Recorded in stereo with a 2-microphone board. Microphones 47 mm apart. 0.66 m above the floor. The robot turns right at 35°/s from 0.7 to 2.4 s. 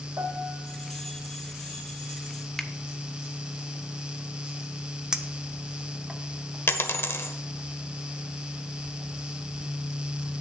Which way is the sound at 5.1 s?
15° right (ahead or behind).